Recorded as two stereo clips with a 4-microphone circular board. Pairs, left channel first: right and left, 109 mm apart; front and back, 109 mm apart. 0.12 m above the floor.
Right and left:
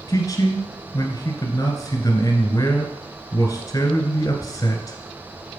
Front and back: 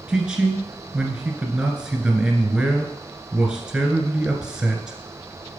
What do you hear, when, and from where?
0.1 s a man speaking: 110° right, 1.7 m